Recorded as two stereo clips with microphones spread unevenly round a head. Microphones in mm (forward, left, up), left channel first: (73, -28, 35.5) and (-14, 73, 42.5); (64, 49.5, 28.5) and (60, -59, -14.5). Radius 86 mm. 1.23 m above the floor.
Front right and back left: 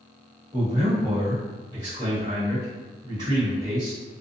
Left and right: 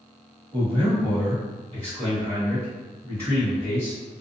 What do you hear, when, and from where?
0.5 s a man speaking: 165° right, 1.4 m